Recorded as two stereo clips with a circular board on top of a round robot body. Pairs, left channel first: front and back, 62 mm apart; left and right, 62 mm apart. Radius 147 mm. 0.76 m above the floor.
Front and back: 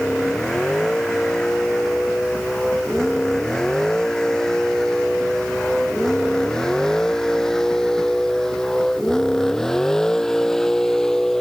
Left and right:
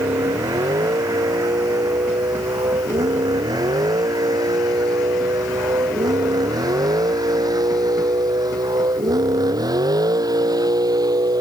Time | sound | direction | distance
0.0 | a vehicle | 80° right | ?